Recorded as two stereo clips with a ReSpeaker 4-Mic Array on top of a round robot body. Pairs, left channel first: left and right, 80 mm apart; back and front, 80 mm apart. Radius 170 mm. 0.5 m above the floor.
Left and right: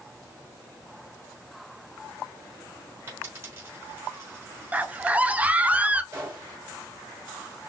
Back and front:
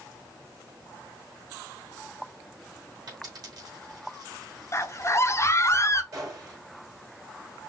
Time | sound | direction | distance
3.1 | a dropped coin | 35° right | 3.5 m
4.7 | a scream | 155° right | 0.9 m
6.1 | a gunshot | 40° right | 3.5 m